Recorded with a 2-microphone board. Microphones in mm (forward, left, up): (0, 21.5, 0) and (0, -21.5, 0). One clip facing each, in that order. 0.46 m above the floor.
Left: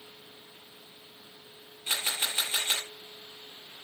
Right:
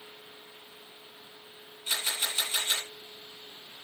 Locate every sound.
1.9 s a camera shutter: 35° left (ahead or behind), 9 m